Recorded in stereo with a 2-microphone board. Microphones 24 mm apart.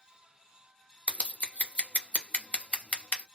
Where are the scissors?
60° left (ahead or behind), 0.7 m.